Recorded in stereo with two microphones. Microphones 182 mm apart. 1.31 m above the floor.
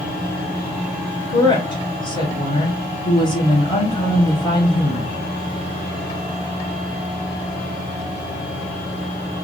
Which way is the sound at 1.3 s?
25° left (ahead or behind).